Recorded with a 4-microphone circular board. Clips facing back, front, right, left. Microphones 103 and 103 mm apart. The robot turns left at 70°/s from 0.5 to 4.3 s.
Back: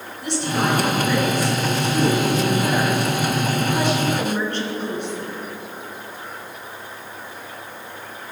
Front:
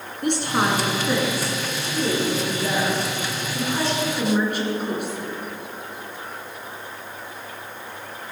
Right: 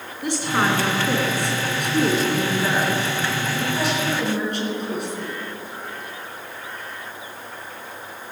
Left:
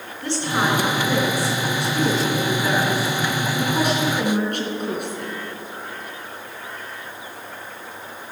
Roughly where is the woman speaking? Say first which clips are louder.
Even, right 1 dB; ahead.